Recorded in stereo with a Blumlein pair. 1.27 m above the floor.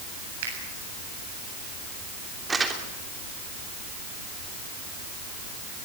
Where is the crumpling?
15° right, 3 m.